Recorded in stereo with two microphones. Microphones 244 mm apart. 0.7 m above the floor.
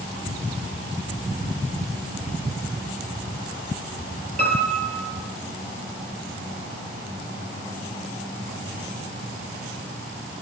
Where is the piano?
75° right (ahead or behind), 9.5 m.